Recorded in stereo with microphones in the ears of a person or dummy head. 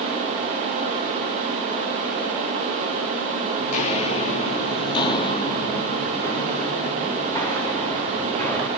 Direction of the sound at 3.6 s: 45° left (ahead or behind).